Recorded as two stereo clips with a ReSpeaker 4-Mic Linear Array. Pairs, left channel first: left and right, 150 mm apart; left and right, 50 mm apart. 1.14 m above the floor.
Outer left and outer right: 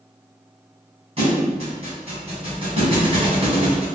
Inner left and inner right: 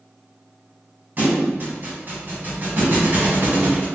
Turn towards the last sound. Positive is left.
turn(degrees=-40)  # may be behind; listen again after turning